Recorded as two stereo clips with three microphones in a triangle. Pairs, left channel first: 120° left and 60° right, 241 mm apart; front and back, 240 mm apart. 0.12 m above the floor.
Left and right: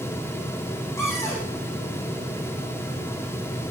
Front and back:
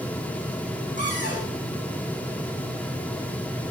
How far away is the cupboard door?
About 4.5 m.